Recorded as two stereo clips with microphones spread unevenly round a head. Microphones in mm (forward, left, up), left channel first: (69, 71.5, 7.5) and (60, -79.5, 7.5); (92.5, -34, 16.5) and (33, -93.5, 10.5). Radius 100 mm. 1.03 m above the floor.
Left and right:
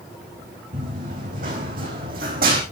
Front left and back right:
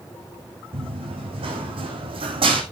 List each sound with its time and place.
0.7 s running footsteps: 145° right, 3.5 m; by 2.6 s 135° right, 3 m